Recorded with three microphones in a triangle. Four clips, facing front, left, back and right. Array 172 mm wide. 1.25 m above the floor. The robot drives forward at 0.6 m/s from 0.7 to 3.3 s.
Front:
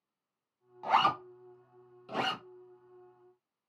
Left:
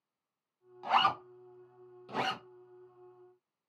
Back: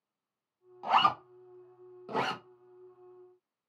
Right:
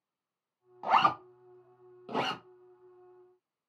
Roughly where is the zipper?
Right.